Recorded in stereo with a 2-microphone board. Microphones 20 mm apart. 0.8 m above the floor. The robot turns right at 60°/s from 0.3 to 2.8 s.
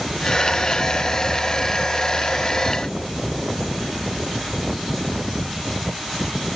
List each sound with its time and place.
Only background noise.